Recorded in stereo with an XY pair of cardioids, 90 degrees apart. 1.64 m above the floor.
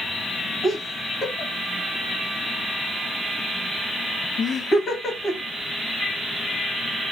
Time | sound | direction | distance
0.6 | laughter | 60° left | 2 m